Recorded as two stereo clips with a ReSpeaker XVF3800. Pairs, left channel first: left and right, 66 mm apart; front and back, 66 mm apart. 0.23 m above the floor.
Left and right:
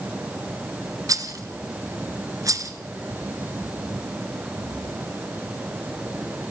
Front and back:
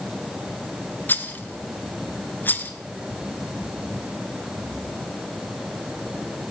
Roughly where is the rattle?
Ahead right.